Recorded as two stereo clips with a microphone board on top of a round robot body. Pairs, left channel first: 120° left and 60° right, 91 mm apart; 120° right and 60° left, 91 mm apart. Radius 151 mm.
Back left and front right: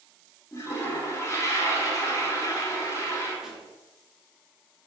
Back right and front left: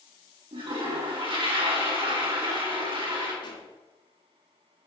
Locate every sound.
0.5 s a toilet flushing: 65° left, 2.5 m
3.4 s a pop: 145° right, 2 m